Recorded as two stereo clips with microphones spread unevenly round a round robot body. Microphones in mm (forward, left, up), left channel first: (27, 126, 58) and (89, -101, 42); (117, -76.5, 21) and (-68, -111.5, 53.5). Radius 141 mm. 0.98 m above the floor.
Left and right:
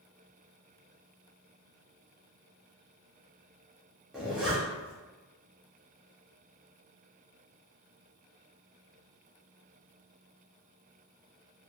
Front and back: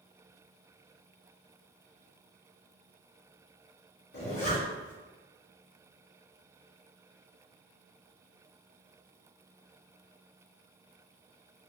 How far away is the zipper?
About 1.0 m.